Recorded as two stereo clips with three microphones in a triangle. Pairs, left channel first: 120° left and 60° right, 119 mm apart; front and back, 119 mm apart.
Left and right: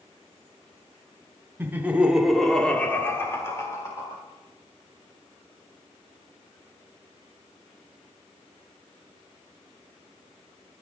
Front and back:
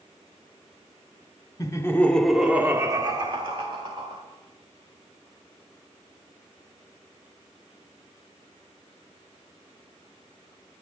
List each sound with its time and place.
1.6 s laughter: 10° right, 0.9 m; by 4.2 s 175° left, 1.5 m